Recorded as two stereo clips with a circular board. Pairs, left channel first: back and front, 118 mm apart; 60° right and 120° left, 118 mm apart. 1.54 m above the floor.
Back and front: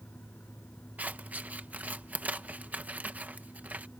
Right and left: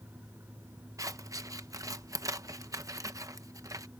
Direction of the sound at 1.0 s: 70° left.